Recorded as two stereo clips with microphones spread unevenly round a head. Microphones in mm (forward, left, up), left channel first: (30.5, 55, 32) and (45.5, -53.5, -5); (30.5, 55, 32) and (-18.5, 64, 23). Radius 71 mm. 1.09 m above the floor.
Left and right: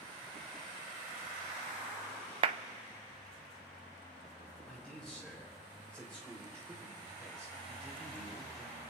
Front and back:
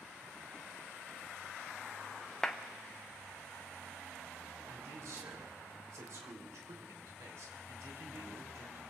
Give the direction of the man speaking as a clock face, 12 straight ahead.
6 o'clock.